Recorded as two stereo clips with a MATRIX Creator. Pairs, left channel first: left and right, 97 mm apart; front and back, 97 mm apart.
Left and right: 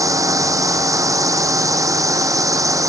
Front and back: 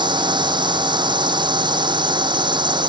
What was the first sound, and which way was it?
A drone, 145° right.